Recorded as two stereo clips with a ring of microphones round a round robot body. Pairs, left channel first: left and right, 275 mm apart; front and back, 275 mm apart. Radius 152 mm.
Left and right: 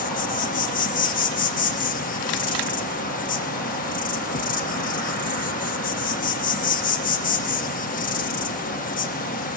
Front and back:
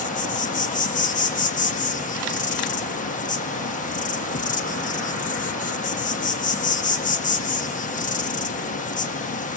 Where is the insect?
45° left, 1.1 m.